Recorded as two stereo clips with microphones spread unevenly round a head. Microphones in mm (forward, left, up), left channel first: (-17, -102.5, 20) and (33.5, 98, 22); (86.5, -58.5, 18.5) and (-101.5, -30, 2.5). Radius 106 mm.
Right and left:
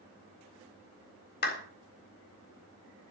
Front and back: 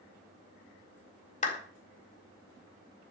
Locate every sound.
1.4 s a clap: 60° right, 4 m